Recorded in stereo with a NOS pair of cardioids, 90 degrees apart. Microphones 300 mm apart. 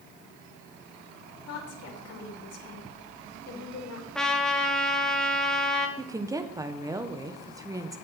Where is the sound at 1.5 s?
50° left, 3 m.